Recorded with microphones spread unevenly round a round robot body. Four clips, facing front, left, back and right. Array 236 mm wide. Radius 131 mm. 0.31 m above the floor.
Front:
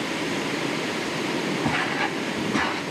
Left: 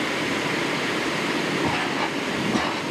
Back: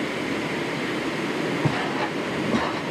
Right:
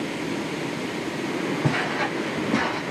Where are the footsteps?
145° right, 4 m; by 2.8 s 160° right, 2.5 m.